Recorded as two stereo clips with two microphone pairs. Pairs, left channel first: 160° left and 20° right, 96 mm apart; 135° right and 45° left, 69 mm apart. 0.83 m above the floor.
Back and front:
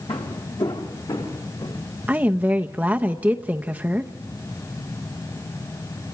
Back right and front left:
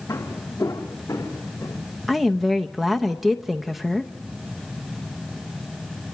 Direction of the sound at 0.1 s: 170° left.